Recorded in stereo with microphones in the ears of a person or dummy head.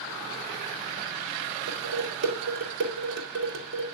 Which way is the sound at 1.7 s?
65° right (ahead or behind).